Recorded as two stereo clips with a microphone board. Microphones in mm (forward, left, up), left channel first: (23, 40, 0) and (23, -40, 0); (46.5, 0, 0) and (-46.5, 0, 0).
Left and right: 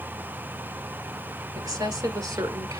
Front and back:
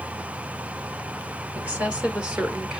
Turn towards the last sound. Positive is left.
turn(degrees=-100)